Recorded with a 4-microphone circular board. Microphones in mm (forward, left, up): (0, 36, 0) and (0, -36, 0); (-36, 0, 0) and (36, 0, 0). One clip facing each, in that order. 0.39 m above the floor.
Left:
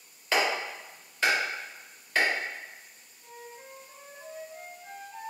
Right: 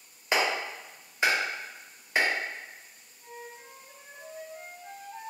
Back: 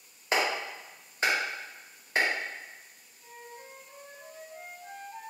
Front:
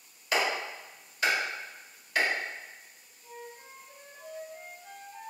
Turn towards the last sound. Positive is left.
turn(degrees=-165)